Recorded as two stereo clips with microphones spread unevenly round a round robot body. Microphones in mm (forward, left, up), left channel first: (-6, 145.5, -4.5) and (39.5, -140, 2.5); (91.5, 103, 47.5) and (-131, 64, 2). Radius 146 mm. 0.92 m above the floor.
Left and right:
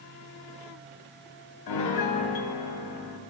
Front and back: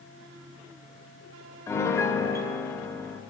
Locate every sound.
1.7 s a piano: 90° left, 0.7 m